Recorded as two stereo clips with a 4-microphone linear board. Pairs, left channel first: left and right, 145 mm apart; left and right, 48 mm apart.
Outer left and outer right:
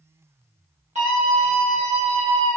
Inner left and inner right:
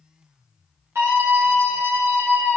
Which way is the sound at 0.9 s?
50° right (ahead or behind).